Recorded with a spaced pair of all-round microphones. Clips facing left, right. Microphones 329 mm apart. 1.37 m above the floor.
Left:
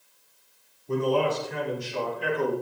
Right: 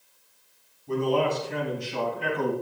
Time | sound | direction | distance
0.9 | a man speaking | 75° right (ahead or behind) | 6.5 m